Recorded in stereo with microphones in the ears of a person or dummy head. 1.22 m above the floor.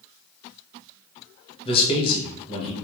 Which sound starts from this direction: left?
A man speaking, at 1.6 s.